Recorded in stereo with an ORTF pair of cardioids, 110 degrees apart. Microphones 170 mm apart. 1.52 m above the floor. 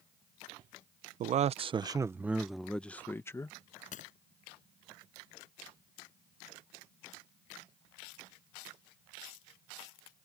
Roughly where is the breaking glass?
Ahead left.